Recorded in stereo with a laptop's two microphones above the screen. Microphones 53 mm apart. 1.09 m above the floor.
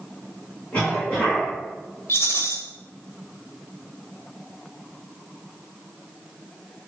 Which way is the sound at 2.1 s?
55° left (ahead or behind).